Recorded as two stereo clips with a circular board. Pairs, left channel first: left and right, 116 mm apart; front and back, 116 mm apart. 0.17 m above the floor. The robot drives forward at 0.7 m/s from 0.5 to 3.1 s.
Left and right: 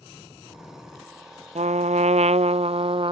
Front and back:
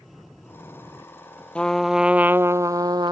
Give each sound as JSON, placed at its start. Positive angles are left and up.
{"t": 1.6, "sound": "a trumpet", "azimuth_deg": -80}